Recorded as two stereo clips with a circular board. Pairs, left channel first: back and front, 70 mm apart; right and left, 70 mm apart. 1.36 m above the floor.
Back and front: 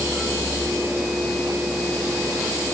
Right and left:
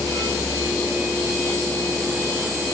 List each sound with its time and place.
Only background noise.